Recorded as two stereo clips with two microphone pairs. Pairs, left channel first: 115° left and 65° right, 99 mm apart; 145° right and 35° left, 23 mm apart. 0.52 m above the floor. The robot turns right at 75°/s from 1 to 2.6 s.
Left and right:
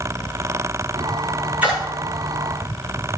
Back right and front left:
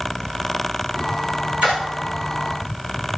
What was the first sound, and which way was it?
A splash, 5° left.